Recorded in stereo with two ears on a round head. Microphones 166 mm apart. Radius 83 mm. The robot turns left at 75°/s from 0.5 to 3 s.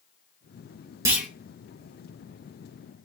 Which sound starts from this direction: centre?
A clunk, at 1.1 s.